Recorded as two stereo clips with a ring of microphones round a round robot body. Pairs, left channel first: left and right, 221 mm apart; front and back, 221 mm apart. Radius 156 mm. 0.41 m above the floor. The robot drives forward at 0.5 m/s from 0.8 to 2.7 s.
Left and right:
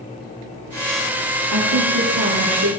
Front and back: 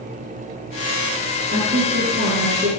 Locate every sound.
1.5 s a woman speaking: 120° right, 9.5 m; by 2.7 s 125° right, 10 m